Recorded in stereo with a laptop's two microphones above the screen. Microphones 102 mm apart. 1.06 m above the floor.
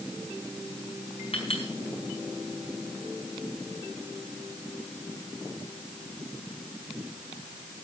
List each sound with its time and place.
1.3 s a clink: 70° left (ahead or behind), 4.5 m